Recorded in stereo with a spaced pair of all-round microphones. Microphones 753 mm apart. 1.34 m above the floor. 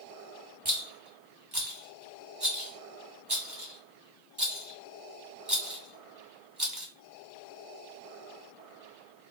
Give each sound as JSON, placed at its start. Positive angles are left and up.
{"t": 0.7, "sound": "a rattle", "side_deg": -30, "distance_m": 2.0}